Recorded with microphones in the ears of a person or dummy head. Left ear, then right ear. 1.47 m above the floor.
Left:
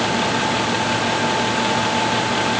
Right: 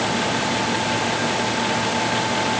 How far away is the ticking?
No ticking in this recording.